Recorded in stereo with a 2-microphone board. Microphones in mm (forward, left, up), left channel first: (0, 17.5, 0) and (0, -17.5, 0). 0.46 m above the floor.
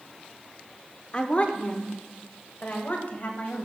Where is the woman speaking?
30° left (ahead or behind), 0.8 m; by 3.6 s 50° left (ahead or behind), 2 m.